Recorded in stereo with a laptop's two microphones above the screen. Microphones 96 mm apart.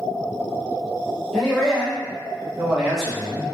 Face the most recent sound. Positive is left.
turn(degrees=0)  # may be behind; listen again after turning